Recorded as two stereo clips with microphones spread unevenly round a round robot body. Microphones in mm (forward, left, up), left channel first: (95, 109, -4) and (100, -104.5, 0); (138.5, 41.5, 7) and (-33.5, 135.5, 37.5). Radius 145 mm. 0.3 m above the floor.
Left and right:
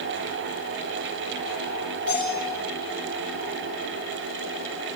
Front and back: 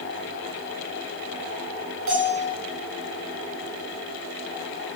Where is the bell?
145° left, 8.5 m.